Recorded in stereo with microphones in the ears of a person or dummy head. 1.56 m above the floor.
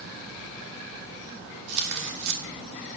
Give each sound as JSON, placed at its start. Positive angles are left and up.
{"t": 1.7, "sound": "tearing paper", "side_deg": -55, "distance_m": 2.0}